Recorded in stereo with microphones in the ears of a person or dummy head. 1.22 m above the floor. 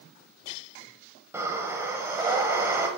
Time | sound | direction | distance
1.3 | breathing | 10° right (ahead or behind) | 1.2 m